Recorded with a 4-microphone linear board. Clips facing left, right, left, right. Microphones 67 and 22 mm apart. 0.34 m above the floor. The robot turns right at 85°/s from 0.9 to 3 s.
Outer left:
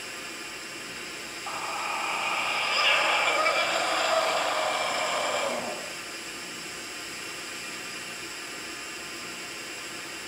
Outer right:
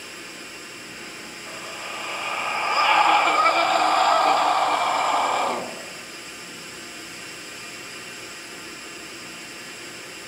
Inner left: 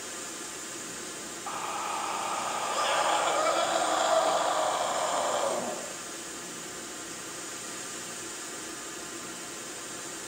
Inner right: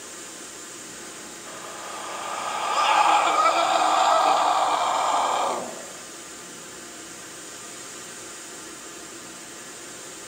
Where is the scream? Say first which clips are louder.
Outer left 4 dB, inner left 5 dB; 105° left, 4 m; by 5.6 s 125° right, 4 m.